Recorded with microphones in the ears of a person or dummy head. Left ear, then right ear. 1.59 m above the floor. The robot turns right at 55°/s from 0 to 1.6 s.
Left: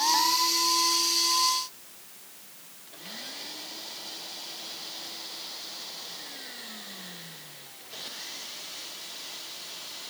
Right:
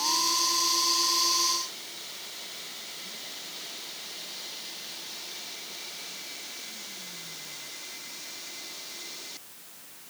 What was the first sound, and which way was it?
Only background noise.